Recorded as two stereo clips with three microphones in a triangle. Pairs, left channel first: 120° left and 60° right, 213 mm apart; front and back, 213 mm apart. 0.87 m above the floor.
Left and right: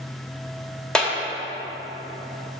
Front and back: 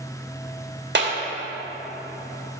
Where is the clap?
155° right, 1.2 m.